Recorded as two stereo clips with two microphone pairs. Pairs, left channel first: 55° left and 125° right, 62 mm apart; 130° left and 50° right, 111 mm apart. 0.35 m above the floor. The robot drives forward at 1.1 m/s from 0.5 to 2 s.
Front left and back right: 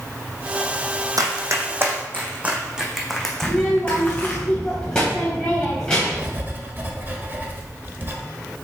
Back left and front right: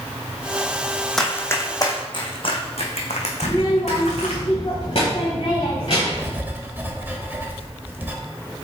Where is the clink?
I don't hear a clink.